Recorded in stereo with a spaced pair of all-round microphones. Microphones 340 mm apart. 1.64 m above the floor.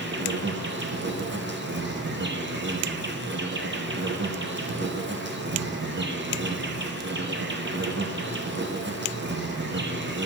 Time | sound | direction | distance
0.0 | an insect | 30° right (ahead or behind) | 0.7 m